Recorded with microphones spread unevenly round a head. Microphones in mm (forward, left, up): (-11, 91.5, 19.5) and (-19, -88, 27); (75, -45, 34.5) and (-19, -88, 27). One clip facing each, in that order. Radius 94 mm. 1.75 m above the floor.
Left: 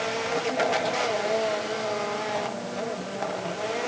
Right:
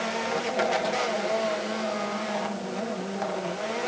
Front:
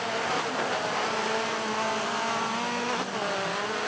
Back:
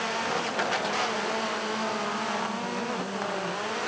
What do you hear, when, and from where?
Only background noise.